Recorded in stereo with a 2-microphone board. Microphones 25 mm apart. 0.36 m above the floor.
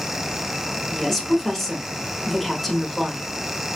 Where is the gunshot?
I don't hear a gunshot.